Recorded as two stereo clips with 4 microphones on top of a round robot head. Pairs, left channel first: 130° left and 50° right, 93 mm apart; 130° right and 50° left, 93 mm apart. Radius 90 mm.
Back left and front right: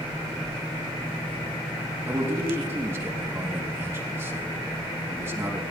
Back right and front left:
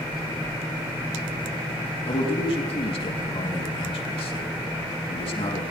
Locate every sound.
2.1 s a man speaking: 115° right, 2.5 m